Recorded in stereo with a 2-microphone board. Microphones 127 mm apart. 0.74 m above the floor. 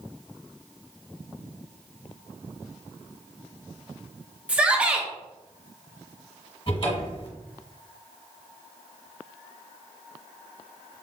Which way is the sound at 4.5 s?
10° right (ahead or behind).